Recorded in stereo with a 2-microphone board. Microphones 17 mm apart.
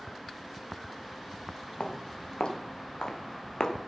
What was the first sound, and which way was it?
Footsteps, 75° left (ahead or behind).